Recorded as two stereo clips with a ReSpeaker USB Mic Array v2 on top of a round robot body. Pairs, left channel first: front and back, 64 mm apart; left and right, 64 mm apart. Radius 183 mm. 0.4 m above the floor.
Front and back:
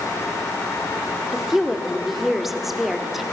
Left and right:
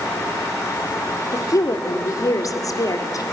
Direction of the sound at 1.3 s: 95° left.